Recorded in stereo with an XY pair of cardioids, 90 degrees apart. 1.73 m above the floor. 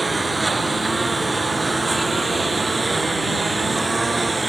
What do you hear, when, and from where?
0.0 s a lawn mower: 20° right